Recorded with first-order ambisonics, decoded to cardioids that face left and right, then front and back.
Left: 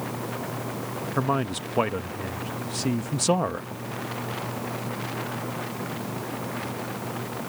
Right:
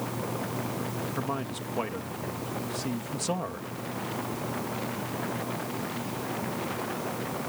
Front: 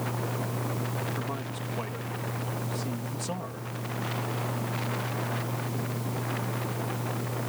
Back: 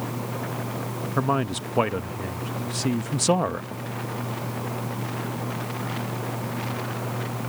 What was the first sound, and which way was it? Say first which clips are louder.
A man speaking: left 11 dB, back 10 dB; 150° left.